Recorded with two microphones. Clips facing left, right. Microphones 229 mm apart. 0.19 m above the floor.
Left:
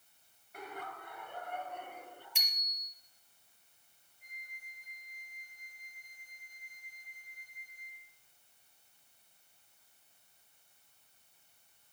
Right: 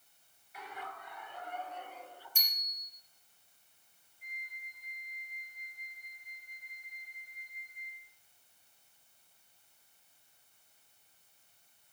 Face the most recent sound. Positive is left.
turn(degrees=35)  # may be behind; listen again after turning